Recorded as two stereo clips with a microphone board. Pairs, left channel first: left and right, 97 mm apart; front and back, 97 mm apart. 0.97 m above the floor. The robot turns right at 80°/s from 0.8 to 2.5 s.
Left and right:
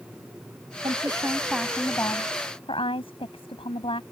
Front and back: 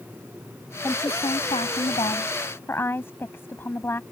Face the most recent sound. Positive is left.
turn(degrees=65)